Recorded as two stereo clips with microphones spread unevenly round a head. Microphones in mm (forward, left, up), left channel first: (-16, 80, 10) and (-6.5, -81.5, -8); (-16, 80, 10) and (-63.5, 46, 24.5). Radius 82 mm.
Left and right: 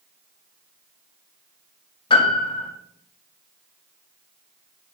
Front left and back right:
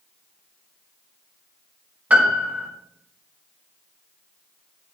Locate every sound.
2.1 s a piano: 155° left, 2 m